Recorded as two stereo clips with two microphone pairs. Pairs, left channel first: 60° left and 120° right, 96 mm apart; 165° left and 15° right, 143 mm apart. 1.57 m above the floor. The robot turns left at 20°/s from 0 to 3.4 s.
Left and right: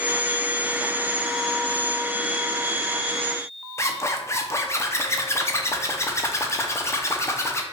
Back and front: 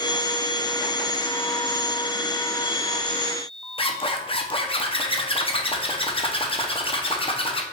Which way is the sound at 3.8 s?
115° left.